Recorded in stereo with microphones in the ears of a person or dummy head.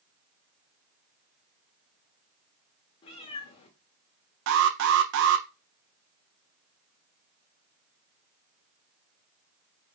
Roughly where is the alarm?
Right.